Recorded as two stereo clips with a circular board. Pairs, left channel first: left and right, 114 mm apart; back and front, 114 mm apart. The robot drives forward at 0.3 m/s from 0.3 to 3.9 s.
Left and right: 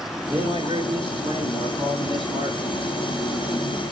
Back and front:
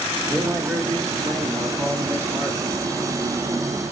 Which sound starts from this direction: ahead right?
A man speaking, at 0.3 s.